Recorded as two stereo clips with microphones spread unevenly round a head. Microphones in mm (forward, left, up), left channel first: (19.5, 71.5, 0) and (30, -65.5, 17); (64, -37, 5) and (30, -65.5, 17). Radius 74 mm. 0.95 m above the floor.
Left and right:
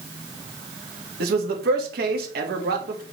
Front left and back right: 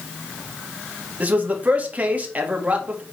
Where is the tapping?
I don't hear tapping.